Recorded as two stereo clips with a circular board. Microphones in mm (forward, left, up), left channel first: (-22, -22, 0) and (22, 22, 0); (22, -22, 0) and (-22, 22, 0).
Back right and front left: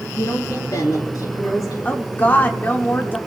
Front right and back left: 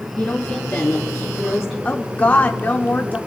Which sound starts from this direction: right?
A woman speaking, at 1.9 s.